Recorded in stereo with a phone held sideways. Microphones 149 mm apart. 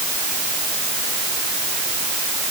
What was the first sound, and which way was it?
Only background noise.